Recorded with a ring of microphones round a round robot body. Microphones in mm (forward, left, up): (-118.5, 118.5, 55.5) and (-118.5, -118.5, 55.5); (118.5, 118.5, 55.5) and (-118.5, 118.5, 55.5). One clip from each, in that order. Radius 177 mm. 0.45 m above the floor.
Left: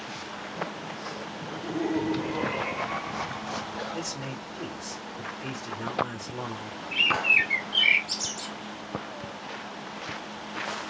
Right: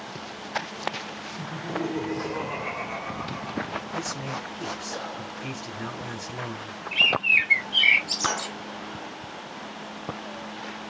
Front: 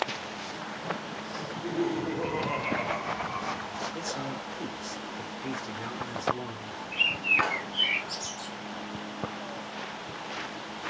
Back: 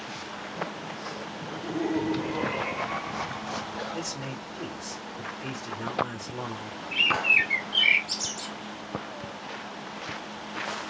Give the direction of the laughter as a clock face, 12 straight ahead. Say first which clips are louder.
Right 1 dB, front 1 dB; 6 o'clock.